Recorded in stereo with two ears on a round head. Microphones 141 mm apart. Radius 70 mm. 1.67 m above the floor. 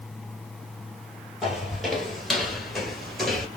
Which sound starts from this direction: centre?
Footsteps, at 1.4 s.